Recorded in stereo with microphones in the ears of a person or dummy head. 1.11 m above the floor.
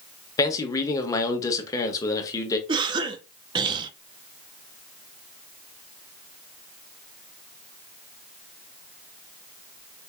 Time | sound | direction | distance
0.4 | a man speaking | 20° left (ahead or behind) | 0.9 m
2.7 | a cough | 25° right (ahead or behind) | 0.6 m